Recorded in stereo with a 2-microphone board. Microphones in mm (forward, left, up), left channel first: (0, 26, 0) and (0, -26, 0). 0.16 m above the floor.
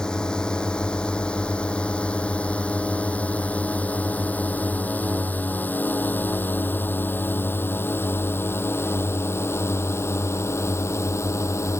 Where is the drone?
15° left (ahead or behind); by 11.8 s 60° left (ahead or behind).